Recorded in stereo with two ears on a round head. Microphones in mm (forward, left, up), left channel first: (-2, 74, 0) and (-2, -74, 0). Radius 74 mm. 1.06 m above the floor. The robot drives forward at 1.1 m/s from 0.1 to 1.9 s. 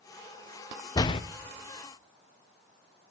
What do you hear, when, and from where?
0.9 s a door slam: 20° left (ahead or behind), 0.7 m; by 1.2 s 35° left (ahead or behind), 0.5 m